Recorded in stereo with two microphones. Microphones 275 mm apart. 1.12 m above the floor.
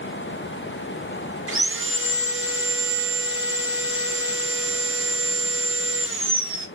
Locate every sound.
1.5 s sawing: 50° right (ahead or behind), 0.9 m